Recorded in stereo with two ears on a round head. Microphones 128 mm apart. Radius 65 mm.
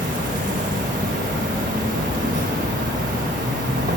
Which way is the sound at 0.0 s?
55° right (ahead or behind).